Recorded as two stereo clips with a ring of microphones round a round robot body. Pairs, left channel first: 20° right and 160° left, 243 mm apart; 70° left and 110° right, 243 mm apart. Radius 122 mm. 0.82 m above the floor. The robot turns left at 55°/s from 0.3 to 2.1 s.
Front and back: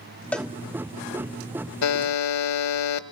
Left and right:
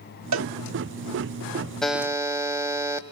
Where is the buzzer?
20° right, 1.0 m; by 3.0 s 35° right, 1.0 m.